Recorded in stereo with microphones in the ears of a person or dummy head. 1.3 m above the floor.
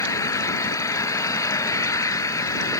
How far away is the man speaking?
I don't hear a man speaking.